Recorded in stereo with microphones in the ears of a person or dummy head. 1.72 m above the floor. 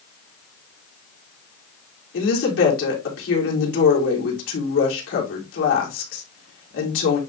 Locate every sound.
2.1 s a woman speaking: 80° left, 4 m